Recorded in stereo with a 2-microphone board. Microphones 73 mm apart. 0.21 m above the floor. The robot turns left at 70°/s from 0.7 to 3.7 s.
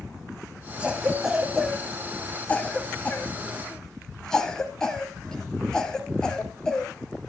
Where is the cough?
15° right (ahead or behind), 1.0 m; by 6.9 s 10° left (ahead or behind), 1.0 m.